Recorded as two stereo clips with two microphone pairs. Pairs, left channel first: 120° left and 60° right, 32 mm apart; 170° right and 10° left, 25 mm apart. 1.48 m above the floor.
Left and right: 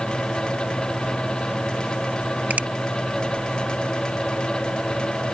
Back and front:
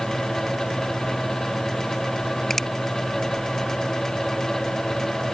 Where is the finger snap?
95° right.